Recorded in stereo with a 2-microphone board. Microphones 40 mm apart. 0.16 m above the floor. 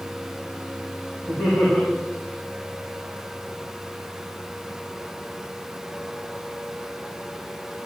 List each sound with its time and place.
1.3 s laughter: 75° left (ahead or behind), 6 m